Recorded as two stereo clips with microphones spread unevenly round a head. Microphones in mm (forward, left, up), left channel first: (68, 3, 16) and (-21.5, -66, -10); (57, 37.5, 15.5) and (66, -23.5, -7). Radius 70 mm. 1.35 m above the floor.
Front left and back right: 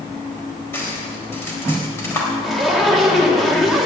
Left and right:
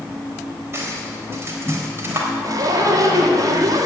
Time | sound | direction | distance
0.7 | cutlery clinking | 30° right | 4 m
2.4 | a zipper | 50° right | 2 m